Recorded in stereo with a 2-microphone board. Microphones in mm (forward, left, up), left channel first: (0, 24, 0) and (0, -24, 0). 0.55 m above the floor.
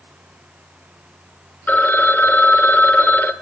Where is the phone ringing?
40° left (ahead or behind), 1.0 m.